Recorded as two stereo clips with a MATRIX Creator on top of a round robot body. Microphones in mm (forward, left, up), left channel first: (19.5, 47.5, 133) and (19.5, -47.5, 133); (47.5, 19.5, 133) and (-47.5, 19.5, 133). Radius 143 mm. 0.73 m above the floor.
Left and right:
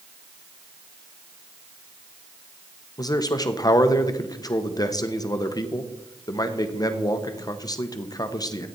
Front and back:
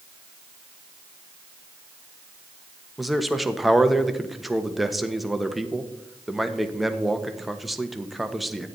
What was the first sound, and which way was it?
A man speaking, 90° left.